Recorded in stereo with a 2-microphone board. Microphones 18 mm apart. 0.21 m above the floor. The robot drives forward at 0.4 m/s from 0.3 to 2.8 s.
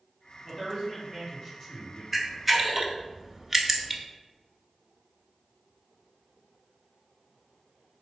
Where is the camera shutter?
5° right (ahead or behind), 0.7 m; by 4.0 s 10° right (ahead or behind), 0.5 m.